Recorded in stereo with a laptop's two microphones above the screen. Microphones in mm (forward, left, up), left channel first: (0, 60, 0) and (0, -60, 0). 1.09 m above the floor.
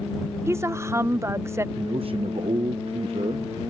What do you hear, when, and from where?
0.5 s a woman speaking: 25° right (ahead or behind)
1.8 s a man speaking: 50° right (ahead or behind)